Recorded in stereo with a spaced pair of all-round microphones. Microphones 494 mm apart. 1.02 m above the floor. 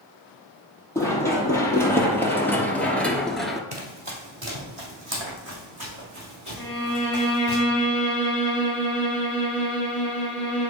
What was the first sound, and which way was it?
Running footsteps, 5° left (ahead or behind).